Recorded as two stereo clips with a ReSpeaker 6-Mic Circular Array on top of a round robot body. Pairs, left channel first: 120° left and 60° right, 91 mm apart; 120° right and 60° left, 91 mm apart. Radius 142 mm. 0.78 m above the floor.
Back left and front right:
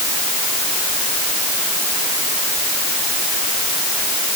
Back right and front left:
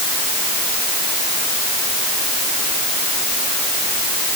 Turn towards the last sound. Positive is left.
No sound to turn to.